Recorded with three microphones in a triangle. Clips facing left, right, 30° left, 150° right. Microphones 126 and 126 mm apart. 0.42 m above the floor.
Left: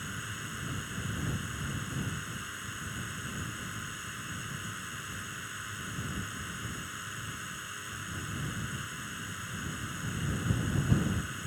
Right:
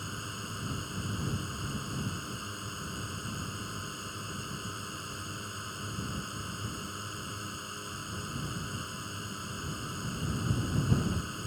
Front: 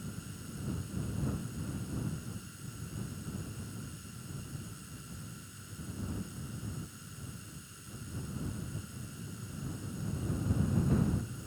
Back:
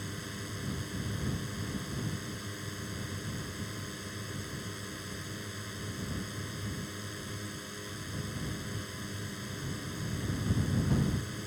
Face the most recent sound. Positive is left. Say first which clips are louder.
# right 1 dB, back 4 dB
turn(degrees=-155)